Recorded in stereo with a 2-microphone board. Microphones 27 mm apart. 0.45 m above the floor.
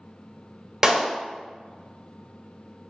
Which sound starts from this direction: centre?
A clap, at 0.8 s.